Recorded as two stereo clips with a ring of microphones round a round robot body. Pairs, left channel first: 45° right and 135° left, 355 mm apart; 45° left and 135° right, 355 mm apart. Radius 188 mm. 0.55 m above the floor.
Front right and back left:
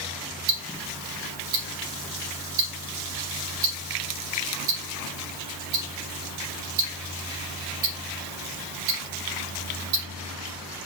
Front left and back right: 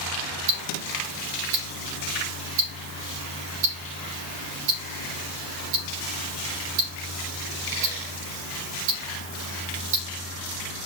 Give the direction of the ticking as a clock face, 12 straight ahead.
6 o'clock.